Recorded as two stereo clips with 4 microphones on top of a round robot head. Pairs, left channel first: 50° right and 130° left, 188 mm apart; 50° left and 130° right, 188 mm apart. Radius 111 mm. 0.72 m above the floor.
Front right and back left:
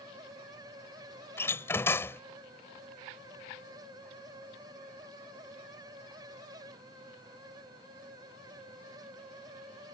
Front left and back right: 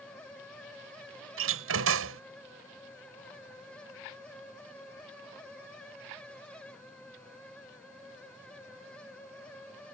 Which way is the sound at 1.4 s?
125° right.